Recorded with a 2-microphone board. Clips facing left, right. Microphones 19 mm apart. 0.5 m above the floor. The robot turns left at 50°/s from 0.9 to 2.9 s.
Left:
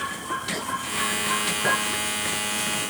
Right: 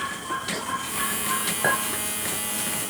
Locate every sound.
1.6 s a clink: 60° right (ahead or behind), 1.4 m; by 1.8 s 55° right (ahead or behind), 1.4 m